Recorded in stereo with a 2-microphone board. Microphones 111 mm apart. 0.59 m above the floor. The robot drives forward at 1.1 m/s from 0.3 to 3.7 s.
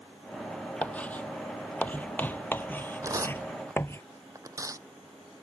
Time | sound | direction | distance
0.8 | writing | 10° left (ahead or behind) | ?
3.0 | tearing paper | 30° right (ahead or behind) | ?